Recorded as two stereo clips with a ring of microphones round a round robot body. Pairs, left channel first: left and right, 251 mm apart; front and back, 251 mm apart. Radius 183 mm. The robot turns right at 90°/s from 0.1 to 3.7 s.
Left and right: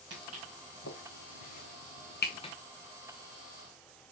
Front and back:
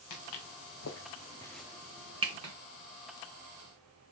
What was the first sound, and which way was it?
Footsteps, 35° right.